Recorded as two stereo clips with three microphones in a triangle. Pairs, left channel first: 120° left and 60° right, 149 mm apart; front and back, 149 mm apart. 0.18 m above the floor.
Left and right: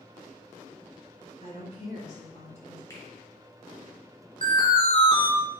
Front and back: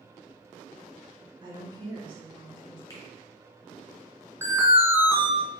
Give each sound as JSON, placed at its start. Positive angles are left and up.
{"t": 1.4, "sound": "a woman speaking", "azimuth_deg": 135, "distance_m": 1.7}
{"t": 2.9, "sound": "a finger snap", "azimuth_deg": 60, "distance_m": 2.5}
{"t": 4.4, "sound": "an alarm", "azimuth_deg": 115, "distance_m": 1.1}